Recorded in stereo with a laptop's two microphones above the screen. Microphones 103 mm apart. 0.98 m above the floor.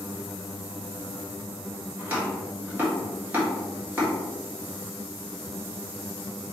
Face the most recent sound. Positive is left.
turn(degrees=-15)  # may be behind; listen again after turning